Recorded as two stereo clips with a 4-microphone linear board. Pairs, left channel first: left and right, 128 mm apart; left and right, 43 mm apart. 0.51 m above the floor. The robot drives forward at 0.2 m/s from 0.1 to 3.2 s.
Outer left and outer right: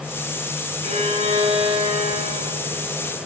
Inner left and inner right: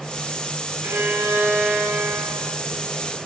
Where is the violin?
55° right (ahead or behind), 2.5 m; by 3.1 s 50° right (ahead or behind), 2.5 m.